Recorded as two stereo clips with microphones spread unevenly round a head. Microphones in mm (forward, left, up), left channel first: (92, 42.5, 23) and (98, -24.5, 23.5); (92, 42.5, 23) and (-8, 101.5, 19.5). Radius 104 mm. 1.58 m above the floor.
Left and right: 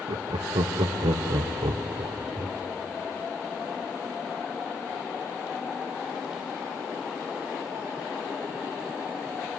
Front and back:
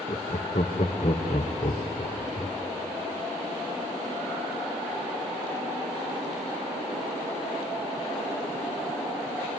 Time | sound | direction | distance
0.1 | laughter | 85° right | 1.0 m